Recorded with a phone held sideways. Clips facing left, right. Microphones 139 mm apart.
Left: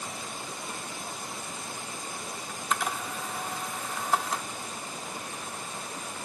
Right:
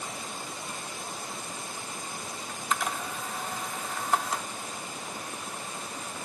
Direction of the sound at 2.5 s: 5° left (ahead or behind).